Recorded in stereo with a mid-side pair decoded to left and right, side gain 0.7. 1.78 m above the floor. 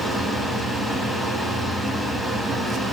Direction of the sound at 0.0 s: Straight ahead.